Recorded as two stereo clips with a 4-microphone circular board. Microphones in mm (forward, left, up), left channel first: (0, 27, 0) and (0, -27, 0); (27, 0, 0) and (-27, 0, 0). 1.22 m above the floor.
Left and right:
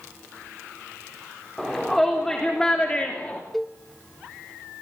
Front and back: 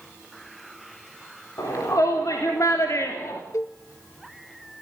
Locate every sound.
1.6 s a shout: 5° left, 4 m; by 3.4 s 30° left, 2.5 m
3.5 s a cowbell: 5° left, 0.6 m